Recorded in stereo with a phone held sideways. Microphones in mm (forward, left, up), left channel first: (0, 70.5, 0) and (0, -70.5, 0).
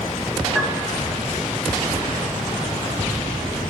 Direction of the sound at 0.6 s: 5° right (ahead or behind).